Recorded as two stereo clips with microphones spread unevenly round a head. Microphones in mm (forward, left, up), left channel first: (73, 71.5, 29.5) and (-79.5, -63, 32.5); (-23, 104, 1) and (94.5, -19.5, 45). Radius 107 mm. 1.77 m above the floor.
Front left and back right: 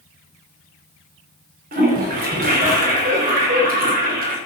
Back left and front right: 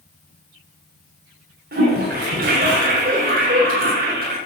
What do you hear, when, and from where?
1.7 s a toilet flushing: 90° right, 3.5 m